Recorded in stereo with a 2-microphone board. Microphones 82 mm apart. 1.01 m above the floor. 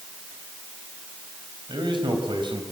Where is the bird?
No bird in this recording.